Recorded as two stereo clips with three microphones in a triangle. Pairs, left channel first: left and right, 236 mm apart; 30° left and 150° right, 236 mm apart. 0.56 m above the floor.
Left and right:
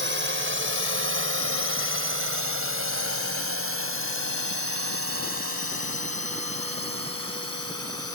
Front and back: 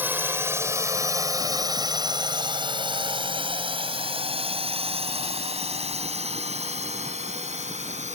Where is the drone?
70° right; by 8.2 s 90° right.